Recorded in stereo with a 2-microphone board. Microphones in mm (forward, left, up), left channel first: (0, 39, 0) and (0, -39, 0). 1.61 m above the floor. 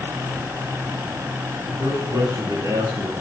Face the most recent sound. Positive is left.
turn(degrees=-65)  # may be behind; listen again after turning